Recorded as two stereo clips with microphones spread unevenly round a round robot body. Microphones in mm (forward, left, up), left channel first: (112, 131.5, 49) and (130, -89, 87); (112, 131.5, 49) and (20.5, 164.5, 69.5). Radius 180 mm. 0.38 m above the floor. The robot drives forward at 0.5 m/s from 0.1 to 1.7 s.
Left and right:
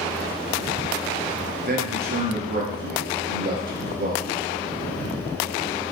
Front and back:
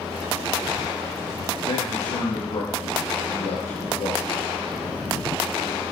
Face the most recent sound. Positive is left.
turn(degrees=-40)